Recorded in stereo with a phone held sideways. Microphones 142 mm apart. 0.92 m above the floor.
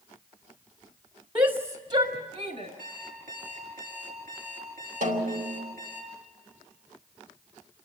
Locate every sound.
1.4 s a shout: 30° right (ahead or behind), 1.0 m; by 2.7 s 60° right (ahead or behind), 3 m
2.8 s an alarm clock: 75° right (ahead or behind), 6 m
5.0 s a snare drum: 75° right (ahead or behind), 3 m